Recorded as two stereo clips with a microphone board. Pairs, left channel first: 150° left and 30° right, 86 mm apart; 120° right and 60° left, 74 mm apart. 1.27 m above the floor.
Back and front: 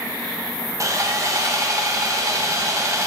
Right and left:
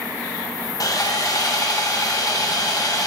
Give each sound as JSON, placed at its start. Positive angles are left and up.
{"t": 0.8, "sound": "sawing", "azimuth_deg": -80, "distance_m": 0.8}